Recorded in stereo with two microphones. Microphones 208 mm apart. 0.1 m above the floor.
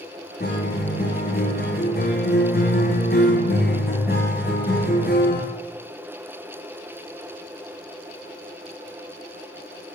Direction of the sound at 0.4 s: 50° left (ahead or behind).